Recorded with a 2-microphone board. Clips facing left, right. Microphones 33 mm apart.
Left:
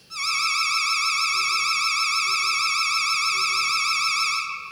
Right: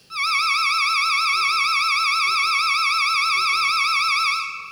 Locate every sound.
0.1 s an alarm: 30° right (ahead or behind), 2 m